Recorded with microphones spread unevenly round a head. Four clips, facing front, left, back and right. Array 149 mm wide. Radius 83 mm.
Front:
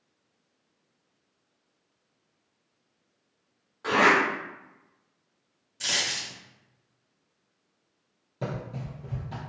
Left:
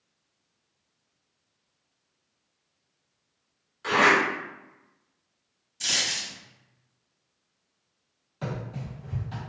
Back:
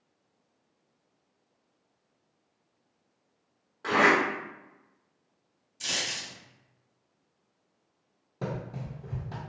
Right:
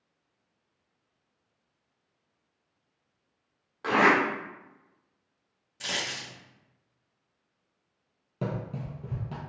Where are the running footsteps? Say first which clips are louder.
Right 1 dB, front 1 dB; 110° right, 1.9 m.